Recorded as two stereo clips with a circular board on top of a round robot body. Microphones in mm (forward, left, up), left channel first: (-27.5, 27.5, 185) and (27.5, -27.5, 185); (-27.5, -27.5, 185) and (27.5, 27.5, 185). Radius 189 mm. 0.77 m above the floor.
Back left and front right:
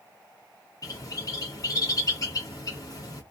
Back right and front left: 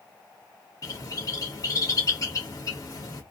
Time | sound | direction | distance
0.8 | a bird | straight behind | 0.8 m